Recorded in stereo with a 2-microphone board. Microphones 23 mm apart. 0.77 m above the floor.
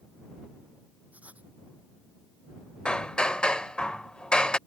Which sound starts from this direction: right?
Writing, at 1.1 s.